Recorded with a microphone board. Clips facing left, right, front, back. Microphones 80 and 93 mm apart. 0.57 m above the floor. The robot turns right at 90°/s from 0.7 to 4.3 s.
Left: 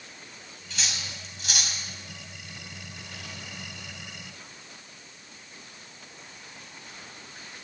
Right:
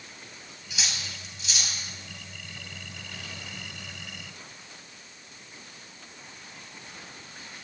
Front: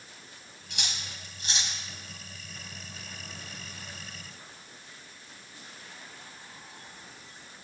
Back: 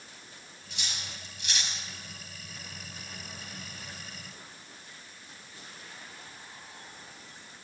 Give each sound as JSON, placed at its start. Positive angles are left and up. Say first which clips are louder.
{"t": 0.7, "sound": "cutlery clinking", "louder": "even, front 2 dB", "azimuth_deg": -15, "distance_m": 2.0}